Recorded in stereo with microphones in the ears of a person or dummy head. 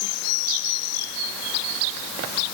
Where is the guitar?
I don't hear a guitar.